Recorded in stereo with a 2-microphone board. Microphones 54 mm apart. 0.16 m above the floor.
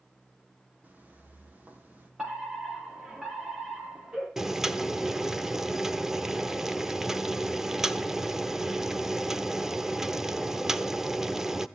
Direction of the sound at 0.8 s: 30° right (ahead or behind).